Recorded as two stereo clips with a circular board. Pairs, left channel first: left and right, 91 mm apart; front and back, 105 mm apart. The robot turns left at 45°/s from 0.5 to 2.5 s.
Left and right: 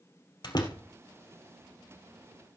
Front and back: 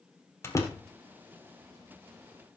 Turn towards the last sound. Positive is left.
turn(degrees=-30)